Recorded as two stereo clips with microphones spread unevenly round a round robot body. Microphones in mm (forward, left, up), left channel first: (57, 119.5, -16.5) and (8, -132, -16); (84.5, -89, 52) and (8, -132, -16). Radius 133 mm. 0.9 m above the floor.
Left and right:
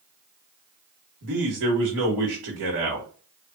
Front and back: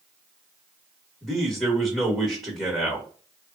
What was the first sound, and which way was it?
A man speaking, 80° right.